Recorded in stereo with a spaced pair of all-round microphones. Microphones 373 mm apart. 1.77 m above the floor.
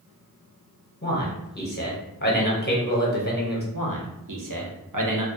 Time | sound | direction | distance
1.0 | a man speaking | 25° left (ahead or behind) | 0.7 m
3.7 | a man speaking | 60° right (ahead or behind) | 0.6 m